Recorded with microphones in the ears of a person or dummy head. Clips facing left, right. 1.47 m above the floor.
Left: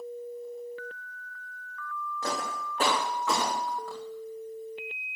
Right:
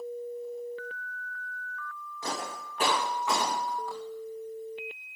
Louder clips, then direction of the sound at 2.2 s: Left 2 dB; 65° left (ahead or behind).